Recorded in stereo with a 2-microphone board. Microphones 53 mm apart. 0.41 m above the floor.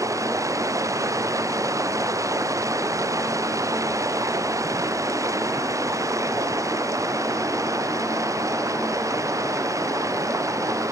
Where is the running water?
75° right (ahead or behind).